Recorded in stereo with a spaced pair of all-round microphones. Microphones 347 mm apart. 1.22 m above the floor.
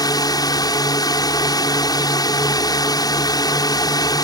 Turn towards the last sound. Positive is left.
turn(degrees=10)  # may be behind; listen again after turning